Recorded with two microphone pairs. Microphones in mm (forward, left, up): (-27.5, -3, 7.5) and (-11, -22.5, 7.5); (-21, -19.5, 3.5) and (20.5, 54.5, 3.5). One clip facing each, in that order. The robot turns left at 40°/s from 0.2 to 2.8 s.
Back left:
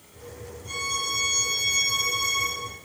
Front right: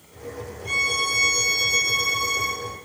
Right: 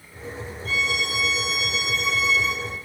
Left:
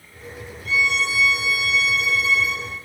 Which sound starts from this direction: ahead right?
A violin, at 0.7 s.